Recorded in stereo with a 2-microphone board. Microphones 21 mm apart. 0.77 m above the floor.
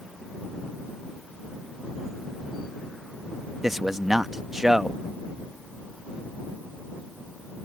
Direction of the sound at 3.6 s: 20° right (ahead or behind).